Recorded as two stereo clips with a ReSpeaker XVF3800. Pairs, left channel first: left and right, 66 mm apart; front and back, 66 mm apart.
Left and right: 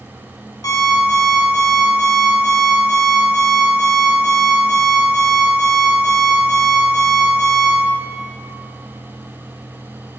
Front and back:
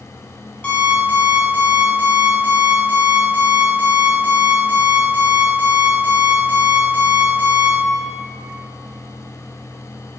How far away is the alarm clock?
About 2.5 m.